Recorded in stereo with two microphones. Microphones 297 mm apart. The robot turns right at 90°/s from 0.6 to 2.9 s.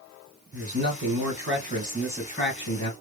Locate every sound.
0.5 s a man speaking: 130° right, 3 m; by 2.9 s 80° left, 3 m